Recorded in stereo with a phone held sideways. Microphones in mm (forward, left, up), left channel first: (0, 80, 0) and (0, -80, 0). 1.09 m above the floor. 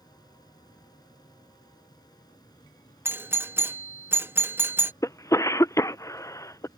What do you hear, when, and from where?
0.0 s a fan: 25° left (ahead or behind)
3.0 s a doorbell: 15° right (ahead or behind)
5.0 s a cough: 20° left (ahead or behind)